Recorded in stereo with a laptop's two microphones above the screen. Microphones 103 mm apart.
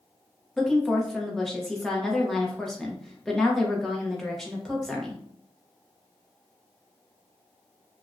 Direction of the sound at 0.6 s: 5° left (ahead or behind).